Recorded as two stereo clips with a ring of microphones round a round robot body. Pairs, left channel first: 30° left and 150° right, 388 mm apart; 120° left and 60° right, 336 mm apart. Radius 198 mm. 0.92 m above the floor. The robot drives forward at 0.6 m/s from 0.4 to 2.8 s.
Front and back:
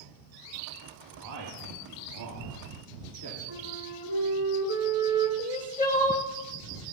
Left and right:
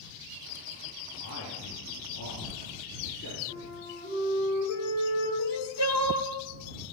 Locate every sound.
1.2 s a man speaking: 175° left, 1.8 m
3.5 s a flute: 175° right, 5.5 m
5.4 s crying: 100° left, 1.4 m